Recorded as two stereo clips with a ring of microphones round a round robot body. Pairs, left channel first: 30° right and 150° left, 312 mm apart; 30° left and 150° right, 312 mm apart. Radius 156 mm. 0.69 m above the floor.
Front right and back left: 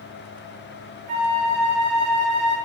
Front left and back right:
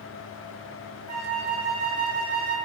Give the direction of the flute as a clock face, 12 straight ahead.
6 o'clock.